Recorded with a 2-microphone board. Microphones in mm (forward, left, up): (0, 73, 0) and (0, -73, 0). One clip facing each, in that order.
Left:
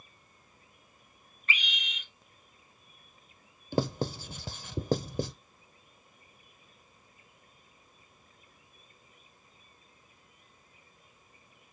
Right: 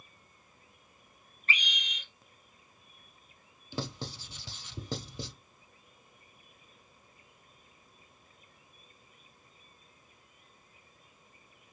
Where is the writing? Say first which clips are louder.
Left 9 dB; 50° left (ahead or behind), 0.7 m.